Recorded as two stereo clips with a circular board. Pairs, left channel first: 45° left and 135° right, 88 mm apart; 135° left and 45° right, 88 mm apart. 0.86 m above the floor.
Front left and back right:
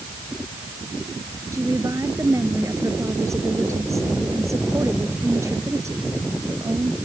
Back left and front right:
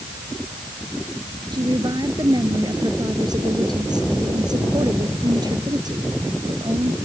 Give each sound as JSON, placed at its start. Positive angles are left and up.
{"t": 1.5, "sound": "a woman speaking", "azimuth_deg": -80}